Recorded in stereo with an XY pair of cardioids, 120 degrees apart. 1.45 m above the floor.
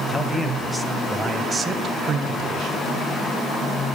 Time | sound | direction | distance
0.1 | a man speaking | 15° left | 1.4 m